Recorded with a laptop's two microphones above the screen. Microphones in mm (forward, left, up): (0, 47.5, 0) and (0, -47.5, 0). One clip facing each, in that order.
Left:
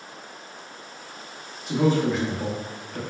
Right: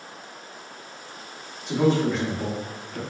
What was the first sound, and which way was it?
A man speaking, 5° left (ahead or behind).